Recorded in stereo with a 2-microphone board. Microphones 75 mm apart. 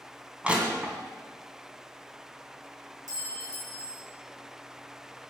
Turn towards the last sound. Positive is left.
turn(degrees=-65)  # may be behind; listen again after turning